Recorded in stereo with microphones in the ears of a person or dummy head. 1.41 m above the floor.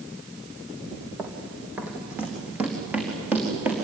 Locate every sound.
1.2 s running footsteps: 5° right (ahead or behind), 3 m